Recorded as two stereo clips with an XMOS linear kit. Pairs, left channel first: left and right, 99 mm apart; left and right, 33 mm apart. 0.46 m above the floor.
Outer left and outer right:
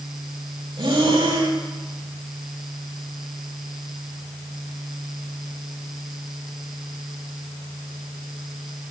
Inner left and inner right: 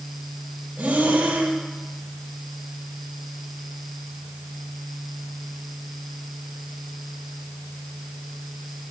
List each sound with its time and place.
0.8 s breathing: 55° right (ahead or behind), 1.5 m